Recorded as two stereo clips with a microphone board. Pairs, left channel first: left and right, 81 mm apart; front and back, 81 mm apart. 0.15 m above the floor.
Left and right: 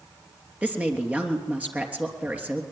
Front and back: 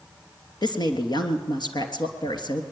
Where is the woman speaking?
20° right, 3 m.